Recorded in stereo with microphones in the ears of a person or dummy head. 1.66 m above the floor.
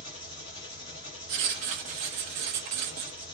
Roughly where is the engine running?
Left.